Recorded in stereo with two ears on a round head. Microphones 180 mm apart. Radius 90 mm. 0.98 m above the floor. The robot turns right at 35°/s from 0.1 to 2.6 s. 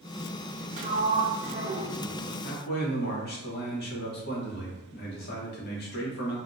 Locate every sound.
0.8 s a sliding door: 85° right, 0.6 m; by 2.3 s 30° right, 0.6 m
2.4 s a man speaking: 50° left (ahead or behind), 0.8 m